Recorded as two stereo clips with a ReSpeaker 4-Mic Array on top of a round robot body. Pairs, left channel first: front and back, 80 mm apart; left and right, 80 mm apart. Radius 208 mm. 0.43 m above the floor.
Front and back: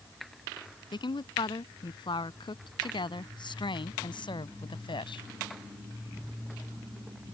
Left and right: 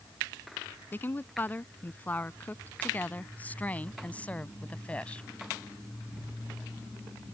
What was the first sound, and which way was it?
A woman speaking, 25° left.